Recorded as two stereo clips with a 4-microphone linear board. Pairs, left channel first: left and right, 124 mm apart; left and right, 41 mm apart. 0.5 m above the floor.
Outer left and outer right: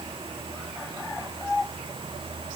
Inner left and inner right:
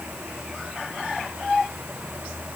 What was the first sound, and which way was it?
Only background noise.